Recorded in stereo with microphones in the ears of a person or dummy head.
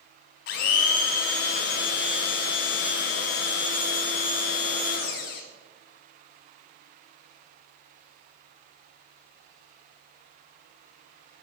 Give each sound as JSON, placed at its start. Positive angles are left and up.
{"t": 0.5, "sound": "a blender", "side_deg": 50, "distance_m": 0.8}